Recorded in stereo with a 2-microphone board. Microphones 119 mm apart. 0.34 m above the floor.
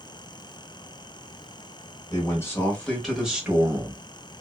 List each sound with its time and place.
2.1 s a man speaking: 30° left (ahead or behind), 1.1 m; by 4.0 s 20° right (ahead or behind), 1.3 m